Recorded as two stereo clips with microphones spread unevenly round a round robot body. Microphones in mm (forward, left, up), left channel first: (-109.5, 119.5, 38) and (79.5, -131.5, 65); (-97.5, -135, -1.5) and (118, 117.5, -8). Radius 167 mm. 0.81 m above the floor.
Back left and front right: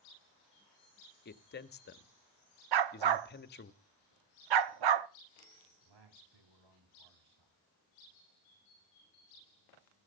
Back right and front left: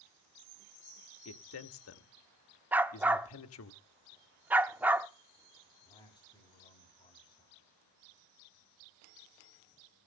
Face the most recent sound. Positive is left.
turn(degrees=-55)